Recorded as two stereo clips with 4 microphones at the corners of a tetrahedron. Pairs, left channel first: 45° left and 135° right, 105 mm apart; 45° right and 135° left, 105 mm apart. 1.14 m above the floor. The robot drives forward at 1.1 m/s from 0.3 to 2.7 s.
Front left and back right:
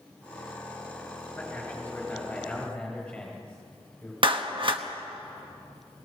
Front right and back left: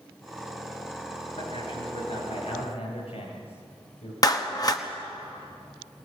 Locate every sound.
1.4 s a man speaking: 30° right, 9.5 m; by 4.1 s 35° right, 8 m
4.2 s a clap: 100° right, 1.2 m